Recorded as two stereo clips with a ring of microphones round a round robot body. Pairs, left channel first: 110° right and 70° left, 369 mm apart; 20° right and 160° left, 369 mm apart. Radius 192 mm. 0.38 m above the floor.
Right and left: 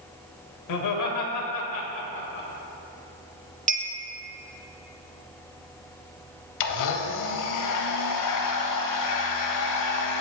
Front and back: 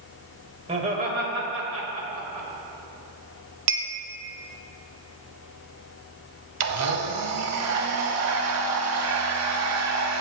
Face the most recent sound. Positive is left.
turn(degrees=-155)